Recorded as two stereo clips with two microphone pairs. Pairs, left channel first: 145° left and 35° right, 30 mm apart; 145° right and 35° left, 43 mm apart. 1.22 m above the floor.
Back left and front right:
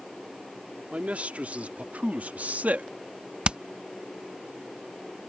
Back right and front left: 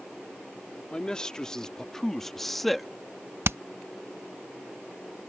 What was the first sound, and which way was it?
A man speaking, 75° right.